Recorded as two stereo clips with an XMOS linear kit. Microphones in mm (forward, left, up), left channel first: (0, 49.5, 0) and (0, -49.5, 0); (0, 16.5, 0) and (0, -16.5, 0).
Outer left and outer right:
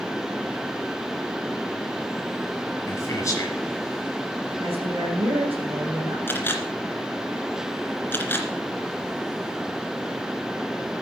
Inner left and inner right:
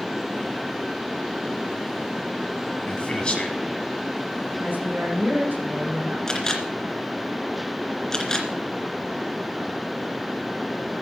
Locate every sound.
2.9 s a man speaking: 35° left (ahead or behind), 1.5 m
4.6 s a woman speaking: 75° right (ahead or behind), 8 m
6.3 s a camera shutter: 20° left (ahead or behind), 2.5 m